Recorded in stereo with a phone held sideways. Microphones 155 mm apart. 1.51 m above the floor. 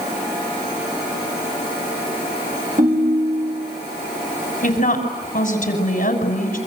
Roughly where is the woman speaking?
Left.